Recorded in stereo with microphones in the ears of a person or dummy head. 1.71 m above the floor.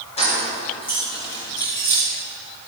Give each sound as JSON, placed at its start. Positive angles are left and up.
{"t": 0.2, "sound": "keys jangling", "side_deg": 30, "distance_m": 3.5}